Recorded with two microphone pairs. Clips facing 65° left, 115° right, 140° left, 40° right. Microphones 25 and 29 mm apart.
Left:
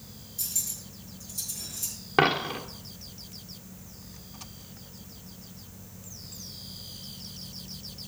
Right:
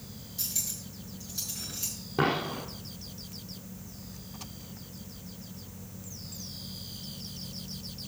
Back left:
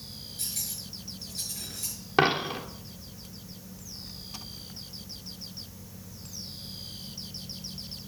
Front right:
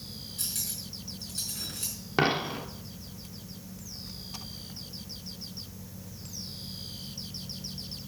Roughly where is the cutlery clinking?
Ahead right.